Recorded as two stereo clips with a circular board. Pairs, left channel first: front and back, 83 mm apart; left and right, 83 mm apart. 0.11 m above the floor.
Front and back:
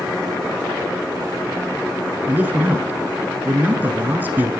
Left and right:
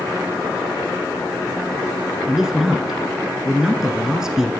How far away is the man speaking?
About 1.1 m.